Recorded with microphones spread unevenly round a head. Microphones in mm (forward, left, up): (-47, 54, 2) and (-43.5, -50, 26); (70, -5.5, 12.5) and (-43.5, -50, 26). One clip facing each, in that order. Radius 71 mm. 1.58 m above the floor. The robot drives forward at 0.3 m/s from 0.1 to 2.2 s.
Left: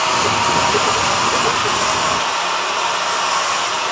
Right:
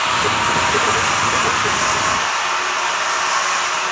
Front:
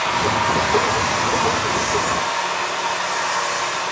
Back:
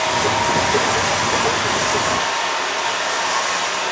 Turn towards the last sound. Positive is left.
turn(degrees=165)